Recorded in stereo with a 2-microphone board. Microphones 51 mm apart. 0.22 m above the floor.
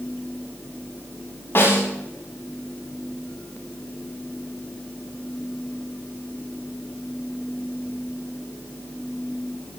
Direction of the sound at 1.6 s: 50° left (ahead or behind).